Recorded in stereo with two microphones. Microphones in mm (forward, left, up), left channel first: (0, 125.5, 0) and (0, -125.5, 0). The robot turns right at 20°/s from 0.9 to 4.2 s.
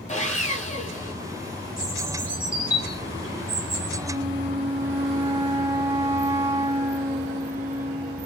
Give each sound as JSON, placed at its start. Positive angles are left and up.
{"t": 0.1, "sound": "sawing", "side_deg": 30, "distance_m": 3.5}
{"t": 1.8, "sound": "a bird", "azimuth_deg": -5, "distance_m": 5.0}
{"t": 4.1, "sound": "a flute", "side_deg": -15, "distance_m": 2.0}